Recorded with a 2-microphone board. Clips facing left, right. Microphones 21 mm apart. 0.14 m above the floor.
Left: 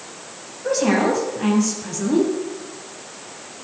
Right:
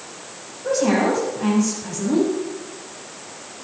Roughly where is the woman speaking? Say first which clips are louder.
Even; left.